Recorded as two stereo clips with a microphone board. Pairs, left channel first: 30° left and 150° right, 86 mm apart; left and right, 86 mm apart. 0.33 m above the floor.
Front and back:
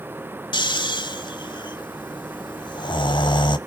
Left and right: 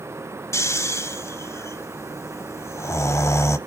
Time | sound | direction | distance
0.5 | snoring | 35° left | 0.8 m